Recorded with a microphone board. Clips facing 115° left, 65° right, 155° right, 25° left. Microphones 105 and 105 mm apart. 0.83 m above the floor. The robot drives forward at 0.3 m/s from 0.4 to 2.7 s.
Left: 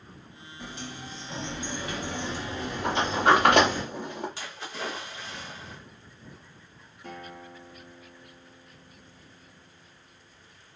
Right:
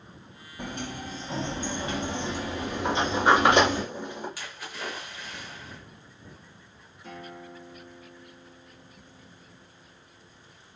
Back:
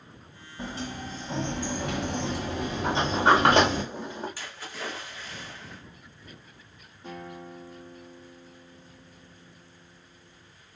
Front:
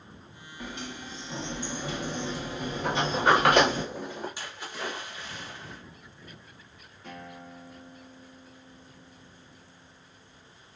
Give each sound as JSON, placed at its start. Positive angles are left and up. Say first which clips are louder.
{"t": 0.6, "sound": "a sliding door", "louder": "right 5 dB, back 4 dB", "azimuth_deg": -95, "distance_m": 0.5}
{"t": 2.8, "sound": "a sliding door", "louder": "even, back 2 dB", "azimuth_deg": 140, "distance_m": 1.4}
{"t": 4.4, "sound": "a splash", "louder": "left 2 dB, front 1 dB", "azimuth_deg": 75, "distance_m": 1.0}
{"t": 7.0, "sound": "a guitar", "louder": "even, back 3 dB", "azimuth_deg": 140, "distance_m": 1.8}